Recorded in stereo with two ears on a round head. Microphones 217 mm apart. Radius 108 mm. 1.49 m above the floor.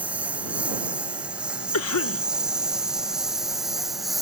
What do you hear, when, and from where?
0.0 s a lawn mower: 5° right (ahead or behind); by 4.2 s centre (ahead or behind)
1.7 s a cough: 65° left (ahead or behind)